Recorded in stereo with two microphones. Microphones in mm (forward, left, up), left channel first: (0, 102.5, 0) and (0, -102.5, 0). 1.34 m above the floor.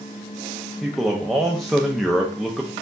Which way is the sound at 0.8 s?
Centre (ahead or behind).